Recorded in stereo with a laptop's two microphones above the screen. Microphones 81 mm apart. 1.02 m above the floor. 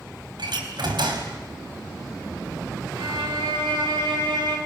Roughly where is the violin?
Right.